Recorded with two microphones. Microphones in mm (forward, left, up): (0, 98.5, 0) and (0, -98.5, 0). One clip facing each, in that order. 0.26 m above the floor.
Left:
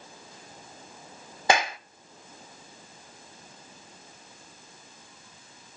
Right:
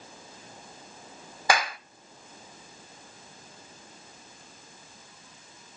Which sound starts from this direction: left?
A clap, at 1.5 s.